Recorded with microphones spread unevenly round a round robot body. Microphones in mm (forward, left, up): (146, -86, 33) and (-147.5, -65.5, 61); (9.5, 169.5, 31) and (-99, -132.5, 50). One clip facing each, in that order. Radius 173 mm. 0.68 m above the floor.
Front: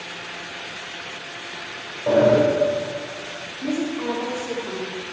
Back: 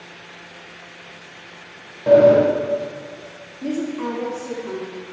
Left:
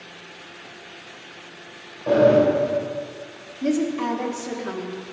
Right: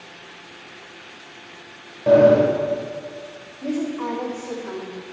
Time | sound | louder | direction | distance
2.1 | a sliding door | back 5 dB, right 3 dB | 135° right | 3.5 m
3.6 | a woman speaking | even, left 3 dB | 95° left | 1.6 m